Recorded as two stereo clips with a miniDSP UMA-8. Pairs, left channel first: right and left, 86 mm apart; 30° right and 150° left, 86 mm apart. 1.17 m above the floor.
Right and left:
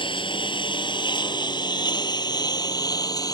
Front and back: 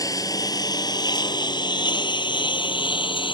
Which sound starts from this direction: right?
A lawn mower, at 0.0 s.